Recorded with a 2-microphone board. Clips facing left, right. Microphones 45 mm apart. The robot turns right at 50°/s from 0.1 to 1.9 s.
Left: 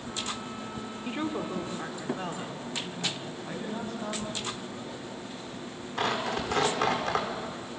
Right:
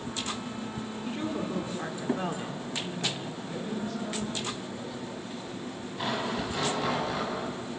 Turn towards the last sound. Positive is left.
turn(degrees=80)